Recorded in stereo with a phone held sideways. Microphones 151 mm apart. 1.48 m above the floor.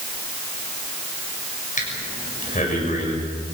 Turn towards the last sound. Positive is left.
turn(degrees=55)  # may be behind; listen again after turning